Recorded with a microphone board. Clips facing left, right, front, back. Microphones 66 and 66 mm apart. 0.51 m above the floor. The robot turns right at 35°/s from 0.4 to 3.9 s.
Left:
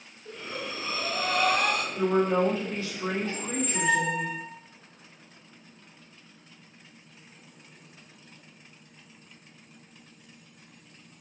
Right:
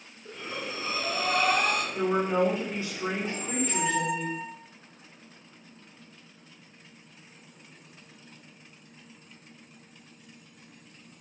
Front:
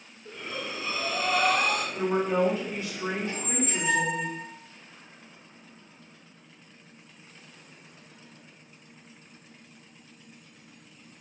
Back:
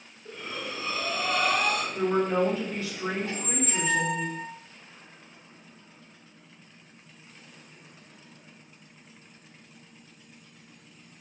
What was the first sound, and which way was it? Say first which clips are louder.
Breathing: even, even; 90° right.